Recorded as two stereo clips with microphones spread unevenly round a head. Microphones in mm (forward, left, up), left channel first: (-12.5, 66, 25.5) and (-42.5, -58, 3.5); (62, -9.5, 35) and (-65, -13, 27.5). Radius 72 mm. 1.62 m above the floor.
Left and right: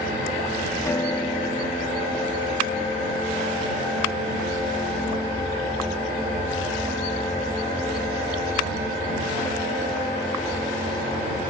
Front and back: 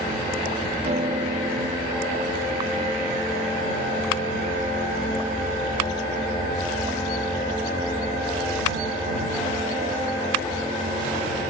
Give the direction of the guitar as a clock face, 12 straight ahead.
7 o'clock.